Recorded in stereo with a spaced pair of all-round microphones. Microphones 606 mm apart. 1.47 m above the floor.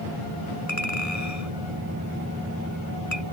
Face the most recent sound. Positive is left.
turn(degrees=70)  # may be behind; listen again after turning